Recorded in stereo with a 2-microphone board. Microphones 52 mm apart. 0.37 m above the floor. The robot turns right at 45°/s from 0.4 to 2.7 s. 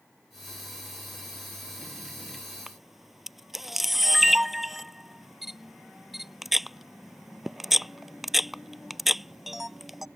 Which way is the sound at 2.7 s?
5° right (ahead or behind).